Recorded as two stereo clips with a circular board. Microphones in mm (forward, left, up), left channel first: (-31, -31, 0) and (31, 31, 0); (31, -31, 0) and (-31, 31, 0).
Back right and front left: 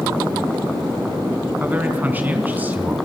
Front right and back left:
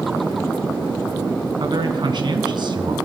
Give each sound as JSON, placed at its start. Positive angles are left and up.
{"t": 1.6, "sound": "a man speaking", "azimuth_deg": 115, "distance_m": 3.5}